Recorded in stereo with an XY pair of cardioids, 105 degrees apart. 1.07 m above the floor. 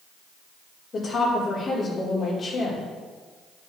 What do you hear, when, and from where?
0.9 s a woman speaking: 40° left, 3 m